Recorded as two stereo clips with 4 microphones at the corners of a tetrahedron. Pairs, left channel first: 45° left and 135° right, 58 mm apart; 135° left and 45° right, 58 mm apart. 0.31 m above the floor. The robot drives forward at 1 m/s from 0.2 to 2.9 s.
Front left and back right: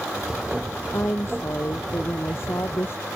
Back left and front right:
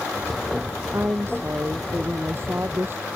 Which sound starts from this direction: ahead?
A woman speaking, at 0.9 s.